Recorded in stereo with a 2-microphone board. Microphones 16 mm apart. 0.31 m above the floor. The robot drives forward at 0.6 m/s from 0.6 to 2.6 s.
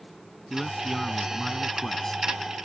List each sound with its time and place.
0.5 s a man speaking: 25° left (ahead or behind); by 2.2 s 30° left (ahead or behind)